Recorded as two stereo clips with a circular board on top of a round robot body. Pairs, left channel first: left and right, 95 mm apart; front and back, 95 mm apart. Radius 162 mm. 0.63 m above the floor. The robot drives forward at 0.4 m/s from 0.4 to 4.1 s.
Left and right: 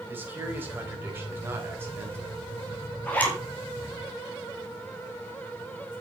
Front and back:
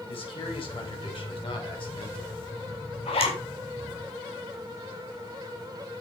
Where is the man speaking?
20° right, 4.5 m; by 2.4 s 25° right, 4 m.